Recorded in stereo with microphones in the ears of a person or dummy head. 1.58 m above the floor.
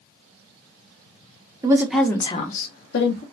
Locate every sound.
1.6 s a woman speaking: 15° right (ahead or behind), 0.9 m; by 3.2 s 75° left (ahead or behind), 1.3 m